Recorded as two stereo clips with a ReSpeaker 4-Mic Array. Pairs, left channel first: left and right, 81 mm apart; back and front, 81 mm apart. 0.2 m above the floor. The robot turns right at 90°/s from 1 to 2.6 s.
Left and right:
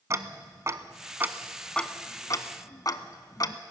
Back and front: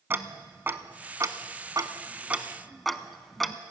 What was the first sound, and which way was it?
Ticking, 55° right.